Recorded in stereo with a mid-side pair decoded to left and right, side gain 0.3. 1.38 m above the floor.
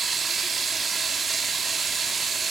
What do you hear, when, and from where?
0.0 s running water: 65° right, 2.5 m